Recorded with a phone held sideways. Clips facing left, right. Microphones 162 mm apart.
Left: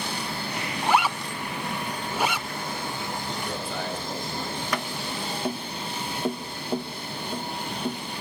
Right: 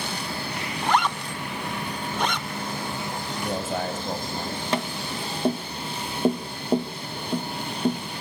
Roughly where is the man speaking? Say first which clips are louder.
Right 4 dB; right.